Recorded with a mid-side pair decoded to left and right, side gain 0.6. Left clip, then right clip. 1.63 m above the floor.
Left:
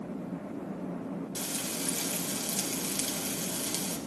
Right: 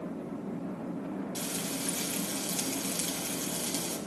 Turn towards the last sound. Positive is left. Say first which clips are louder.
# left 2 dB
turn(degrees=20)